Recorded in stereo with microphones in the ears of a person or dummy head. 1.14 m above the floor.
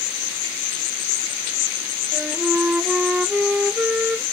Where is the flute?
5° right (ahead or behind).